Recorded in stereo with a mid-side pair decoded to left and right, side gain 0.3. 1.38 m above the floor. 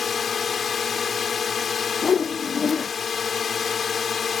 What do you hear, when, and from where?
0.0 s a drone: 65° left
2.0 s a whoosh: 60° left